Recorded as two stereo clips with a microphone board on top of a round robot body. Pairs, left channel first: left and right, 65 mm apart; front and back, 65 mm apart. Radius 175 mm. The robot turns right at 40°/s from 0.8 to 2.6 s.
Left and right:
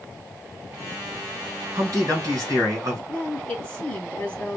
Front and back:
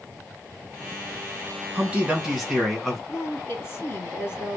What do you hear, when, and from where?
1.8 s a man speaking: 110° right, 2 m; by 3.0 s 75° right, 2 m
3.1 s a woman speaking: 20° left, 1.6 m